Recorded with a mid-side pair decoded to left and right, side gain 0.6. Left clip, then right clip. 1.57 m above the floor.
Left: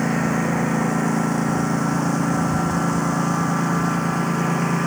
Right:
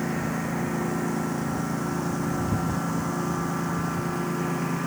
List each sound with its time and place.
0.0 s a lawn mower: 40° left